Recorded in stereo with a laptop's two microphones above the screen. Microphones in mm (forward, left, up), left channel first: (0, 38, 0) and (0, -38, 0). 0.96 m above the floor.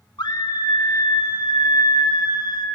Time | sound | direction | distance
0.2 | a scream | 65° left (ahead or behind) | 1.5 m